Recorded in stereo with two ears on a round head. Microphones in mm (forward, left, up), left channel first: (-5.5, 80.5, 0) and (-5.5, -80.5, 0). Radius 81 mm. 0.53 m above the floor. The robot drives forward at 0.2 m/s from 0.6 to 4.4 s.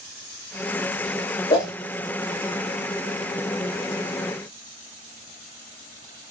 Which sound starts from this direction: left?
A whoosh, at 1.5 s.